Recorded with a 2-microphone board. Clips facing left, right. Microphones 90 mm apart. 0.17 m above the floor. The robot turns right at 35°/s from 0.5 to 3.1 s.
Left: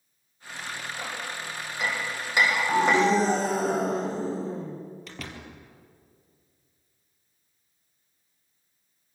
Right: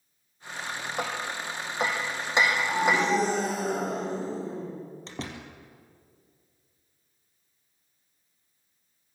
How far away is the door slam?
About 3 m.